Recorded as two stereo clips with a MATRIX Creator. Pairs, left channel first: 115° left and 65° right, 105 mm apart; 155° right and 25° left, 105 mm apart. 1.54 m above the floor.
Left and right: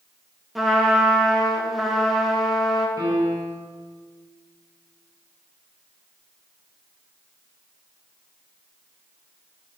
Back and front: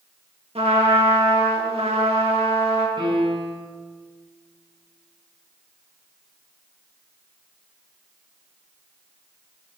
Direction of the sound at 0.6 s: 20° left.